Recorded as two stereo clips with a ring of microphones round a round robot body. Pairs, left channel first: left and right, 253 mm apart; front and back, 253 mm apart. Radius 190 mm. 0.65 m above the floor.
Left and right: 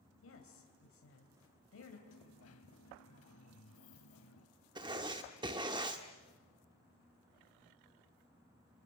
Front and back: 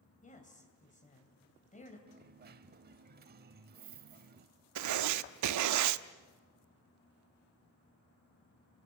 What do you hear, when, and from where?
0.2 s a woman speaking: 60° left, 3.5 m
2.1 s a dropped coin: 135° left, 0.7 m
4.8 s writing: 165° right, 0.7 m